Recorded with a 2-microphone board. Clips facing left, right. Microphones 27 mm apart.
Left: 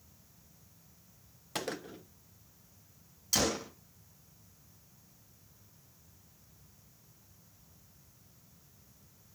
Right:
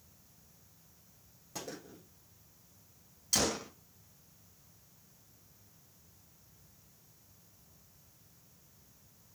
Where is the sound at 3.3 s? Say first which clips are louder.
Left 1 dB; 5° left (ahead or behind), 0.6 m.